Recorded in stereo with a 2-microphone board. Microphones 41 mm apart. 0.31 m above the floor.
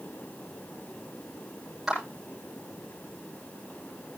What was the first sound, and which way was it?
A clap, 5° right (ahead or behind).